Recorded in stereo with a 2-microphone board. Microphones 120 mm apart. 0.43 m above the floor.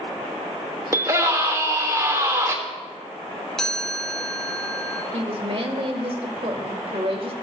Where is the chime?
5° left (ahead or behind), 1.5 m.